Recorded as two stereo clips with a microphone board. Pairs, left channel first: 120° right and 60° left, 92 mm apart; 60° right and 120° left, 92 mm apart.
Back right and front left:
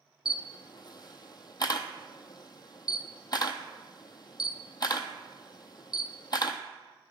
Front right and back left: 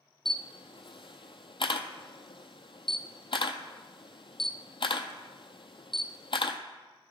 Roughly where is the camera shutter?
Right.